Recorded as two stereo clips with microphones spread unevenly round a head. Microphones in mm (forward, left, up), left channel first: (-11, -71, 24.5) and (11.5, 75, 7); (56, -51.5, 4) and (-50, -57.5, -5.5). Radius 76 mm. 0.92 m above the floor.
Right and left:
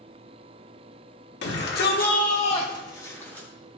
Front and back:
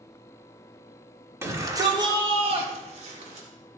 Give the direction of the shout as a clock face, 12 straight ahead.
4 o'clock.